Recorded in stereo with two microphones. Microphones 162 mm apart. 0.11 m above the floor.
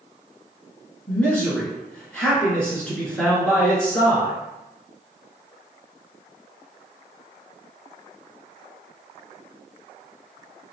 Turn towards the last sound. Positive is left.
turn(degrees=5)  # may be behind; listen again after turning